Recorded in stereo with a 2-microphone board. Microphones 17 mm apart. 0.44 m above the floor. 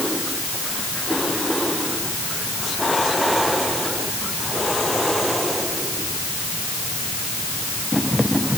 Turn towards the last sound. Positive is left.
No sound to turn to.